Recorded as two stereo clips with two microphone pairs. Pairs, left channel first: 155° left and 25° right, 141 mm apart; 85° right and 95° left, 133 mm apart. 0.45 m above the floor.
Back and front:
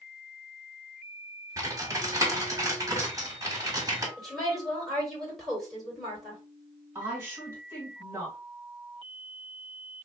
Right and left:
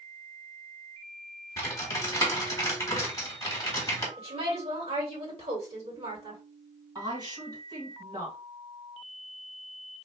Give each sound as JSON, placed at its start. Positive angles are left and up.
{"t": 1.6, "sound": "typing on a keyboard", "azimuth_deg": -60, "distance_m": 1.3}
{"t": 4.2, "sound": "a woman speaking", "azimuth_deg": 70, "distance_m": 2.0}
{"t": 7.0, "sound": "a woman speaking", "azimuth_deg": 45, "distance_m": 1.9}